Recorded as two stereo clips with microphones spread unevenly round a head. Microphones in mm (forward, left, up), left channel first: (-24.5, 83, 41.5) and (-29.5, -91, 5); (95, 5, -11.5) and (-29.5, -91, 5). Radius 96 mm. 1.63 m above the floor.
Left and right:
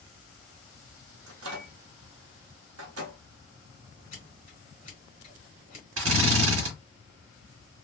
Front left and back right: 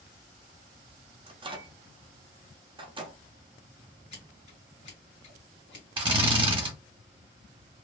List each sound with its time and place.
1.3 s a microwave: 85° right, 0.9 m
4.1 s scissors: 65° left, 1.9 m
6.0 s a drill: 95° right, 1.4 m